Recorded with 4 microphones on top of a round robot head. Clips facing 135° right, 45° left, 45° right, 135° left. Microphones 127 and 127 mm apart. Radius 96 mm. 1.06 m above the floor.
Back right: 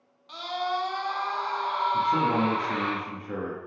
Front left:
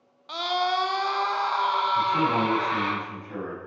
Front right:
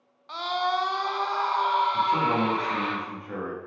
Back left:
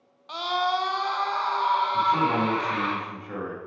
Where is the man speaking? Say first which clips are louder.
Back right 2 dB, back left 1 dB; 130° right, 1.6 m.